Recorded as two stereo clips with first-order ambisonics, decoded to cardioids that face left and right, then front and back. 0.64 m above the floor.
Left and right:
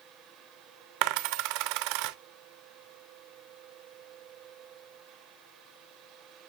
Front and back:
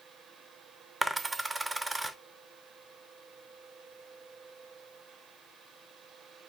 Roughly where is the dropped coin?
Right.